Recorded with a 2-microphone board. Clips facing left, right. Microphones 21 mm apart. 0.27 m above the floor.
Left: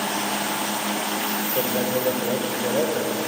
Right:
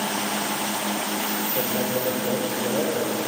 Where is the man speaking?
25° left (ahead or behind), 7.5 m.